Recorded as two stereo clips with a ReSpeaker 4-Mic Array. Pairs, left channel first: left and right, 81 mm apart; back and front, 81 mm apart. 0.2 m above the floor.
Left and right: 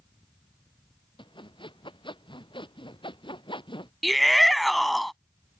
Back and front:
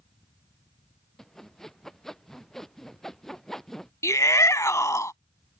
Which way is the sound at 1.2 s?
95° left.